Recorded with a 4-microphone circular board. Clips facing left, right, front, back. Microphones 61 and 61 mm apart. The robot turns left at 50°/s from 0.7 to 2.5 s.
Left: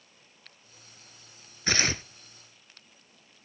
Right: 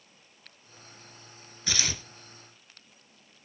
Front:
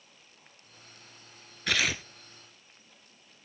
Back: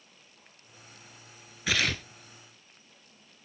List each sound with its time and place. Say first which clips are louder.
1.7 s tearing paper: left 6 dB, even; 95° left, 0.8 m; by 2.0 s 75° left, 0.8 m